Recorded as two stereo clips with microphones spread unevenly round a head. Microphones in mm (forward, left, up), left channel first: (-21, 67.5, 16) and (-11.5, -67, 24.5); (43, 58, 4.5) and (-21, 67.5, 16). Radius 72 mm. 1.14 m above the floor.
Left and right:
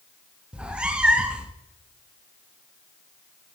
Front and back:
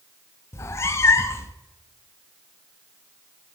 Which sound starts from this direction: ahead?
A cat meowing, at 0.5 s.